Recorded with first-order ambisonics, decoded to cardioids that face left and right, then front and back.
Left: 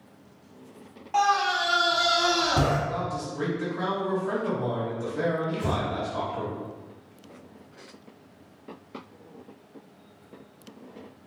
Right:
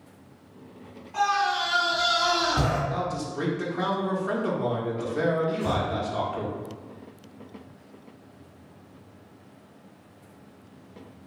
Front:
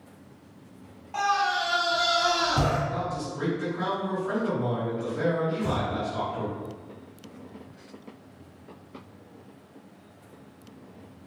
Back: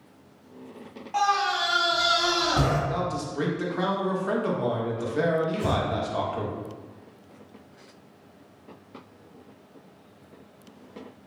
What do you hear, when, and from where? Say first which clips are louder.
1.1 s a scream: left 1 dB, back 1 dB; 105° left, 1.0 m
2.9 s a man speaking: right 1 dB, back 2 dB; 155° right, 1.0 m
5.5 s breathing: right 2 dB, back 2 dB; 150° left, 1.1 m